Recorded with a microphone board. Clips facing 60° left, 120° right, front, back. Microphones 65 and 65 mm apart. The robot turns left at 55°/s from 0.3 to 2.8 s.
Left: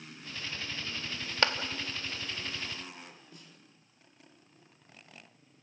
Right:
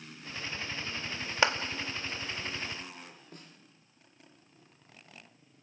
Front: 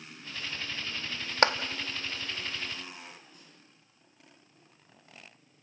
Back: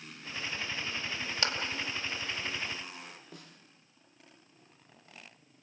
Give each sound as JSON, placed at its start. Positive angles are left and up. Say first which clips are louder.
{"t": 1.4, "sound": "a clap", "louder": "right 2 dB, front 11 dB", "azimuth_deg": -45, "distance_m": 1.4}
{"t": 3.3, "sound": "a snare drum", "louder": "right 3 dB, back 5 dB", "azimuth_deg": -165, "distance_m": 2.5}